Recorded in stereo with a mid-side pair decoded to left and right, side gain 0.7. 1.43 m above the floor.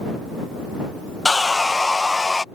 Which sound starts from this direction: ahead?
Sawing, at 1.2 s.